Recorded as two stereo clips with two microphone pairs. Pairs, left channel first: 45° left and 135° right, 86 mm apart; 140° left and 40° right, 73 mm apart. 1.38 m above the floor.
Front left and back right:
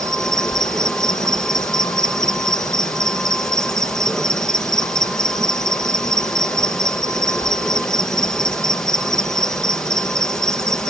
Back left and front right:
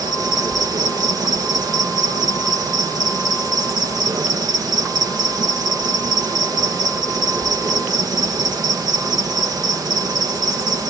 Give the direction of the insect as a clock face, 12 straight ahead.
1 o'clock.